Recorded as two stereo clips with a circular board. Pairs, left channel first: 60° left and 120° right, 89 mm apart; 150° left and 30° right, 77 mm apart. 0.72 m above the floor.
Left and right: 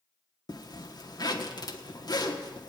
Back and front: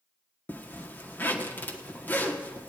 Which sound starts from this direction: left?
A zipper, at 0.5 s.